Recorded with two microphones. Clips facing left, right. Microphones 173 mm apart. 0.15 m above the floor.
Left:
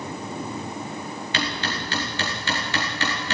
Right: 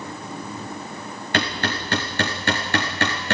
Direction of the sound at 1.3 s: 55° right (ahead or behind).